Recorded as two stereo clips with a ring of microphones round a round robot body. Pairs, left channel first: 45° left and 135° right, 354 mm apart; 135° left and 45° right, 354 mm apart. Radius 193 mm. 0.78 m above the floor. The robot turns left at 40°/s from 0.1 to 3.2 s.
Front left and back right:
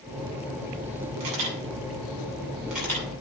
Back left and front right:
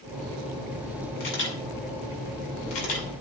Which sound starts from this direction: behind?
A camera shutter, at 1.2 s.